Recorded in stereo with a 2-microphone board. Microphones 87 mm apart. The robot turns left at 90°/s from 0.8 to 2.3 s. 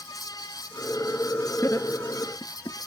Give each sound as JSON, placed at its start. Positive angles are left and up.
{"t": 1.6, "sound": "laughter", "side_deg": 25, "distance_m": 2.0}